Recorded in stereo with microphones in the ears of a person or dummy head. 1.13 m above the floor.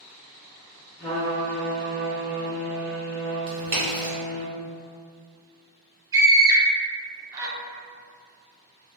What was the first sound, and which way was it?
A trumpet, 30° left (ahead or behind).